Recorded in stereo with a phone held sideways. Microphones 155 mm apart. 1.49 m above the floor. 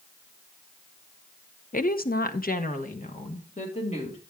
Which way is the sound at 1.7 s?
60° left (ahead or behind).